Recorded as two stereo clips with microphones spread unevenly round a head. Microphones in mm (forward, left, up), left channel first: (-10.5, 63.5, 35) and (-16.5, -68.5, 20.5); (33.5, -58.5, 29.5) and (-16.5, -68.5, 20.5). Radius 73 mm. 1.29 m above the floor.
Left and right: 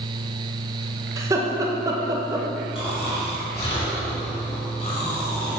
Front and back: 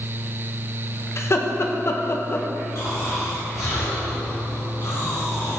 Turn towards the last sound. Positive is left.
turn(degrees=45)